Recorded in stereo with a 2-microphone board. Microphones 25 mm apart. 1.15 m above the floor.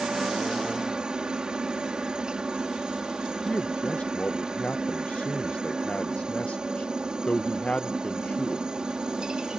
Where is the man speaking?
60° left (ahead or behind).